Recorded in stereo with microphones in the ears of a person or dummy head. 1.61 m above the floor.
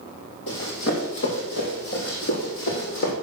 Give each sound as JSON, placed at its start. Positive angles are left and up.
{"t": 0.5, "sound": "running footsteps", "side_deg": 65, "distance_m": 3.5}